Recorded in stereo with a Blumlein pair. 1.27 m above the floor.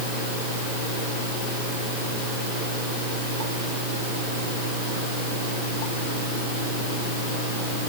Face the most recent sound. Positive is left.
No sound to turn to.